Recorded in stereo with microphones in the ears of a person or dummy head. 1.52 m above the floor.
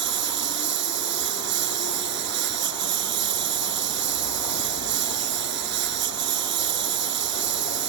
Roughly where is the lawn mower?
Right.